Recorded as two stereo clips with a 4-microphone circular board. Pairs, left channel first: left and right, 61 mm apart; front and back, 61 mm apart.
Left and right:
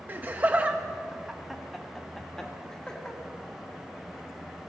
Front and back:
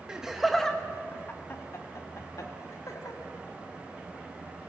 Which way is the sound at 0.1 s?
115° right.